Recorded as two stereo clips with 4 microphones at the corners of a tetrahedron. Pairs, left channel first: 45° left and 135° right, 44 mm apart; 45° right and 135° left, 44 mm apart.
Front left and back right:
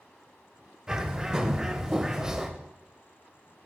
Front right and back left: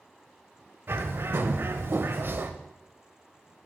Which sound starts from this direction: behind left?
A bird, at 0.9 s.